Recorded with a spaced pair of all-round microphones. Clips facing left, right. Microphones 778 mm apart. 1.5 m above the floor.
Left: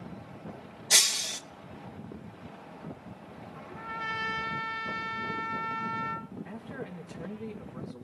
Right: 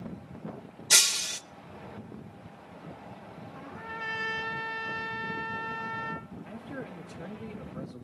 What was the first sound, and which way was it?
Breaking glass, 45° right (ahead or behind).